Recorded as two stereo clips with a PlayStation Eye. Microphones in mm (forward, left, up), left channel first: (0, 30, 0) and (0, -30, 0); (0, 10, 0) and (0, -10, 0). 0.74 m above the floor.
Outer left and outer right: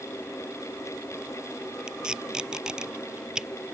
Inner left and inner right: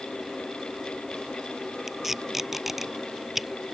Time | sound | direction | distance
1.9 | tape being pulled | 15° right (ahead or behind) | ?